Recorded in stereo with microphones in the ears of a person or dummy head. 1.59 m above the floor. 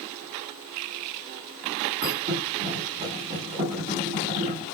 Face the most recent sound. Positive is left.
turn(degrees=-35)  # may be behind; listen again after turning